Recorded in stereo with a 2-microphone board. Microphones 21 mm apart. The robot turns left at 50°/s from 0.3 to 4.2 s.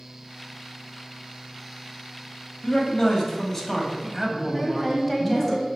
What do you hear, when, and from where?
2.6 s a man speaking: 70° left, 1.4 m; by 5.5 s 5° right, 1.4 m
4.5 s a woman speaking: 15° left (ahead or behind), 1.3 m